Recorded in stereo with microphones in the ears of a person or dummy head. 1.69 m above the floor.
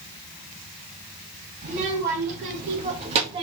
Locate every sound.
1.6 s a child speaking: 45° right (ahead or behind), 2.5 m; by 3.4 s 30° right (ahead or behind), 1.7 m